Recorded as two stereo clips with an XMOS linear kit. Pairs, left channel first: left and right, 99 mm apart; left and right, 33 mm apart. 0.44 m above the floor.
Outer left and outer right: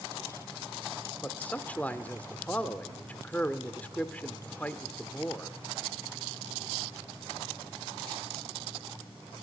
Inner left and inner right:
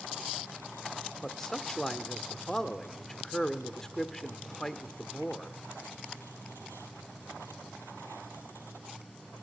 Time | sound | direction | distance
1.2 | a man speaking | 15° left (ahead or behind) | 1.1 m